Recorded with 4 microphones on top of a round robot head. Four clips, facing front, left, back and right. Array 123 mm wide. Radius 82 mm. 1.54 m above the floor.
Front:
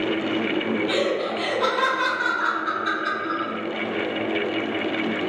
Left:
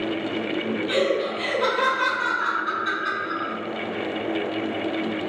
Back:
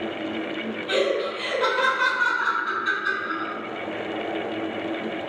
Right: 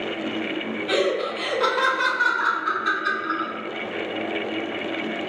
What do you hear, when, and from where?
0.9 s laughter: 90° right, 1.7 m